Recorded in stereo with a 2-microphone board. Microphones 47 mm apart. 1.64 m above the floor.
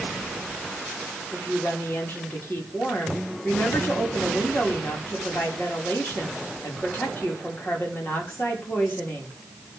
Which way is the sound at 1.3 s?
45° left (ahead or behind).